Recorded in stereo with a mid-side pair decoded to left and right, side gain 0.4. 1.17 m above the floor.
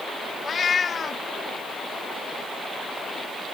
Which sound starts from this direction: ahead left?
A cat meowing, at 0.4 s.